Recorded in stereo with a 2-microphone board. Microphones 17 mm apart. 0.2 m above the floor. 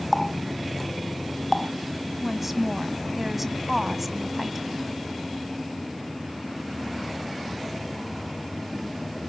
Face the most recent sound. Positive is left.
turn(degrees=-15)  # may be behind; listen again after turning